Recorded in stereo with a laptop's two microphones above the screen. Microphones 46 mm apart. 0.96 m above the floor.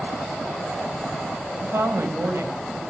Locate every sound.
1.6 s a woman speaking: 65° right (ahead or behind), 5.5 m